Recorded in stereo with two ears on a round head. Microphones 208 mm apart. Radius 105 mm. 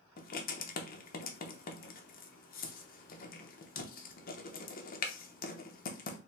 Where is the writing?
40° left (ahead or behind), 0.8 m.